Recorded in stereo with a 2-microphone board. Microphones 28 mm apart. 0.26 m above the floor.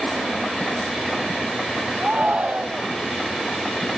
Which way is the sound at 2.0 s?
45° right (ahead or behind).